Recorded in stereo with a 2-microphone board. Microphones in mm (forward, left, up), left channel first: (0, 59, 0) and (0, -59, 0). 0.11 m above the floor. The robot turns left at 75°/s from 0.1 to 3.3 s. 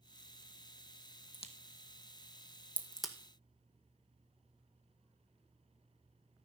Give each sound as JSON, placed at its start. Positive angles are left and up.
{"t": 1.3, "sound": "a crack", "side_deg": 50, "distance_m": 1.6}